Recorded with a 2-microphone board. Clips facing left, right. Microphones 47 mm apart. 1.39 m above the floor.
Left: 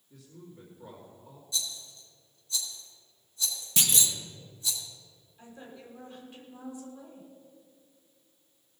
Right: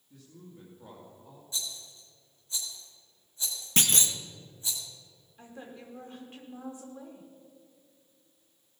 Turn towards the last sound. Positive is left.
turn(degrees=-40)  # may be behind; listen again after turning